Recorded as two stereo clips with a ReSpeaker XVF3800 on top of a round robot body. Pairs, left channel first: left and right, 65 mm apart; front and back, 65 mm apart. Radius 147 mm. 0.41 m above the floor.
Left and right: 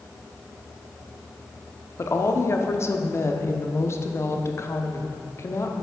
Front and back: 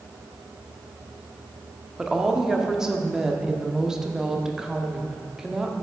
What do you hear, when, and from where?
2.0 s a woman speaking: 105° left, 0.9 m